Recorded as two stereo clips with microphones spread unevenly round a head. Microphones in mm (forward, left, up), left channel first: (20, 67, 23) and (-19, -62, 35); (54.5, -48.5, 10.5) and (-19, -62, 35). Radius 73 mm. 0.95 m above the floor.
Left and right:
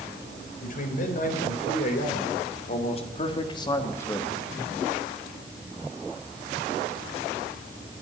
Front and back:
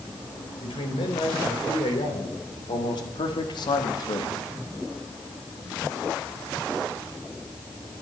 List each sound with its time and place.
0.6 s a man speaking: 45° left, 4 m; by 4.5 s 15° right, 1.2 m